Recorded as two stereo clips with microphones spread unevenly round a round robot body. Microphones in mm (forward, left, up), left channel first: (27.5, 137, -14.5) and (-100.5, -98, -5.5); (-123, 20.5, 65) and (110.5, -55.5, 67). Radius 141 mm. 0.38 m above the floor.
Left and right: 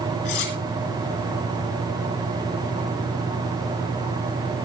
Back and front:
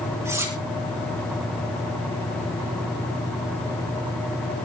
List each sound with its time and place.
0.2 s cutlery clinking: 60° left, 3.5 m